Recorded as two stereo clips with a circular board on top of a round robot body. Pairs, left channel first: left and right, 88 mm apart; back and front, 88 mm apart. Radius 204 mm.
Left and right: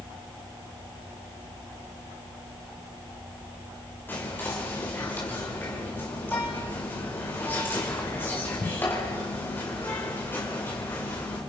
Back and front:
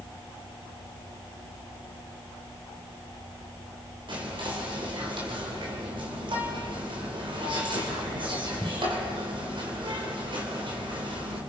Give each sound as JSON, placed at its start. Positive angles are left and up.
{"t": 4.1, "sound": "whispering", "azimuth_deg": 20, "distance_m": 3.0}